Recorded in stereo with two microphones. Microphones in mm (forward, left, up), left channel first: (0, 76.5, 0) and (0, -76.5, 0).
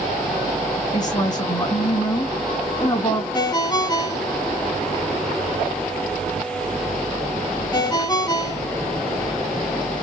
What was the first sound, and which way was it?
A woman speaking, 25° left (ahead or behind).